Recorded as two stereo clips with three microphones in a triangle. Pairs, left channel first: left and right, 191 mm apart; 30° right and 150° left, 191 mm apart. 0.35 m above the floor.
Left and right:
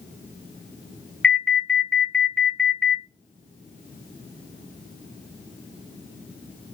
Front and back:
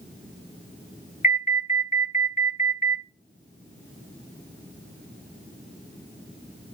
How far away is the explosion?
I don't hear an explosion.